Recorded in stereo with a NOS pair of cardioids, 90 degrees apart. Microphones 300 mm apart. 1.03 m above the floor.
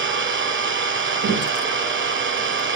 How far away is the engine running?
About 1.8 m.